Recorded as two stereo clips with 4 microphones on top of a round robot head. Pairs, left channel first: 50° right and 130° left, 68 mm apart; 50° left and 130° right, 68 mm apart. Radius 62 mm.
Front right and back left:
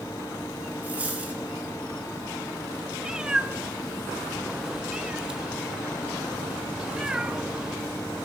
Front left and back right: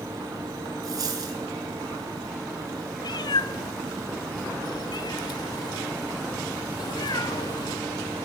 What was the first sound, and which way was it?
A dropped coin, 165° right.